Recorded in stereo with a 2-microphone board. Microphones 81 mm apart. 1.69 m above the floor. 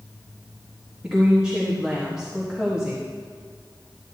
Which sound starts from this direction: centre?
A woman speaking, at 1.0 s.